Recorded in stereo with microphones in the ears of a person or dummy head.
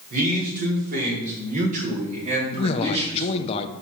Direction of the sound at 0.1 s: 50° right (ahead or behind).